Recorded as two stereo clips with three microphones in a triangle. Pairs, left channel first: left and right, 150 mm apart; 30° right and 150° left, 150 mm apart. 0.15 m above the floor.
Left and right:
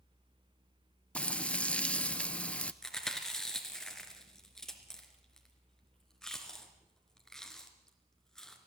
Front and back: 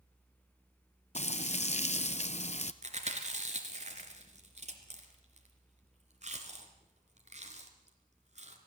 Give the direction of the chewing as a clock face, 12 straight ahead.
6 o'clock.